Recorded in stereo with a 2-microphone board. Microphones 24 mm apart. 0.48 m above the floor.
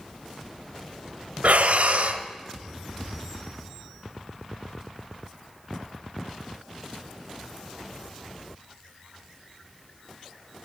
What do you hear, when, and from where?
1.4 s breathing: 70° right (ahead or behind), 0.9 m